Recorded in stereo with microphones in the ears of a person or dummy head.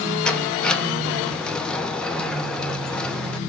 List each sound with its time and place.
0.2 s a sliding door: 10° left (ahead or behind), 1.0 m